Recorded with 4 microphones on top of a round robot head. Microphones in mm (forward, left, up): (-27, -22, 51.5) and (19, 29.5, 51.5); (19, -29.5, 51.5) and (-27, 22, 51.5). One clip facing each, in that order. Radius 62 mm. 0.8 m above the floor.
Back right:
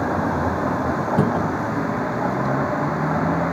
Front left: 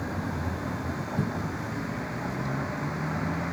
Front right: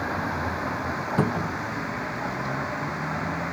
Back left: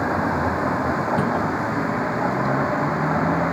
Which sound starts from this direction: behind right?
A cupboard door, at 1.2 s.